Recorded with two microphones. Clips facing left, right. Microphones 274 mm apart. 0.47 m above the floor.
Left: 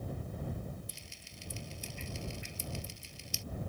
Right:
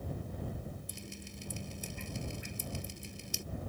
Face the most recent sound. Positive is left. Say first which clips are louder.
# right 8 dB
turn(degrees=-60)  # may be behind; listen again after turning